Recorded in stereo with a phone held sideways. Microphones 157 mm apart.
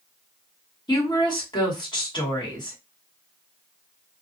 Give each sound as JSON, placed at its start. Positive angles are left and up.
{"t": 0.9, "sound": "a woman speaking", "side_deg": 30, "distance_m": 2.0}